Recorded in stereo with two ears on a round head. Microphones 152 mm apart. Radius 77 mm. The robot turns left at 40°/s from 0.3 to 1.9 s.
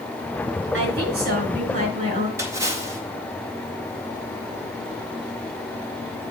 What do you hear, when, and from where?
0.7 s a woman speaking: 90° right, 5 m; by 2.3 s 135° right, 5 m
2.4 s a splash: 15° right (ahead or behind), 2.0 m